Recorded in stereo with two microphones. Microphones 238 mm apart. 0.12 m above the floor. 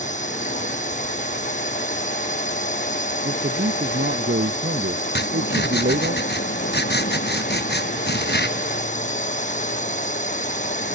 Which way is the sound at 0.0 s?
30° left (ahead or behind).